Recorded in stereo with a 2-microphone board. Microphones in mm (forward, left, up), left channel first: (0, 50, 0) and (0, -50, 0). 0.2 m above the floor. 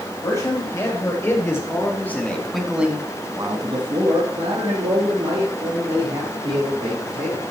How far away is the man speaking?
About 4.5 m.